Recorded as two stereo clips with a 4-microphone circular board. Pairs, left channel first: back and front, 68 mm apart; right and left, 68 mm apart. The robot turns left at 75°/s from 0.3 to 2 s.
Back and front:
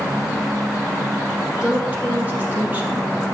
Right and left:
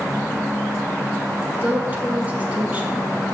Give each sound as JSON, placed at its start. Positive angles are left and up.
{"t": 1.6, "sound": "a woman speaking", "azimuth_deg": 70, "distance_m": 1.5}